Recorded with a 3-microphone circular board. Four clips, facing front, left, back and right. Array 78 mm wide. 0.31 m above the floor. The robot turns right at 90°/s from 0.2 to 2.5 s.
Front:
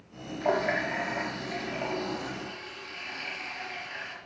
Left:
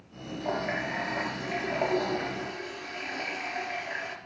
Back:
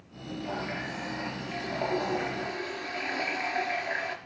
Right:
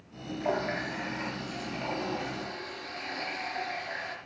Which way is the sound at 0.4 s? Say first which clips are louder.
Even, front 9 dB; 15° right.